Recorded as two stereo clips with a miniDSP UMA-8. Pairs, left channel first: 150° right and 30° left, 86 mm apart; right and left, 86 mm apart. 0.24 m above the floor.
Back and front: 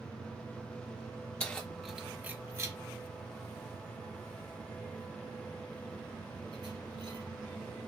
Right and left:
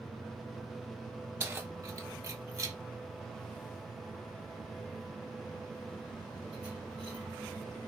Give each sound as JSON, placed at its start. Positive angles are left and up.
{"t": 1.4, "sound": "keys jangling", "azimuth_deg": 140, "distance_m": 0.9}